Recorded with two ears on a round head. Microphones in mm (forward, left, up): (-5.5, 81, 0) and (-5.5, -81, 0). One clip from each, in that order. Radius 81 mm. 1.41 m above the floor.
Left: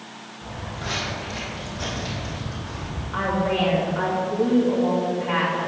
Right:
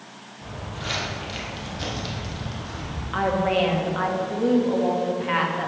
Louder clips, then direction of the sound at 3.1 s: Right 1 dB; 80° right.